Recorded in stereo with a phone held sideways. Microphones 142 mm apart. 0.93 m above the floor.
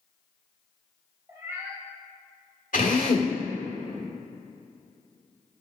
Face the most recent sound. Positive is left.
turn(degrees=75)  # may be behind; listen again after turning